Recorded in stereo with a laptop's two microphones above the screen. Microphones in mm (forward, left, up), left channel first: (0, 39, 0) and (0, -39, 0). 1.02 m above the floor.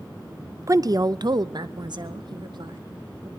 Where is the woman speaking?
40° right (ahead or behind), 0.5 m; by 3.3 s 65° right (ahead or behind), 2 m.